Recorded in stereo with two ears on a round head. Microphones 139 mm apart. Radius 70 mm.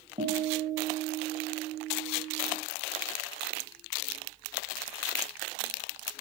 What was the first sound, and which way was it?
A guitar, 40° right (ahead or behind).